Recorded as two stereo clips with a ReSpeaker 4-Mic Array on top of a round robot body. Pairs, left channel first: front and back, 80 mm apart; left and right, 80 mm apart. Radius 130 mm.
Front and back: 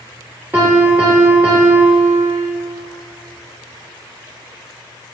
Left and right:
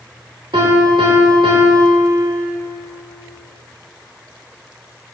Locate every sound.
0.5 s a piano: 115° right, 0.8 m